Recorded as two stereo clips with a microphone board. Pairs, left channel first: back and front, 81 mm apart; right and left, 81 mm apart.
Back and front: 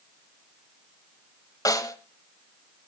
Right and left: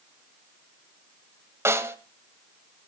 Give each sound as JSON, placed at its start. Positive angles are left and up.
{"t": 1.6, "sound": "a snare drum", "azimuth_deg": 145, "distance_m": 1.6}